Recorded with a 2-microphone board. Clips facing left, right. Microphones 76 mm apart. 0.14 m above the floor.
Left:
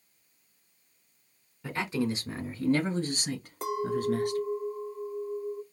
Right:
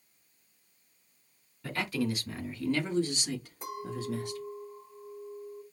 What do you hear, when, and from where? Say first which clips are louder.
1.6 s a man speaking: left 2 dB; 20° left (ahead or behind), 1.5 m; by 4.4 s 50° left (ahead or behind), 2.5 m
3.6 s a clink: left 13 dB; 70° left (ahead or behind), 2.5 m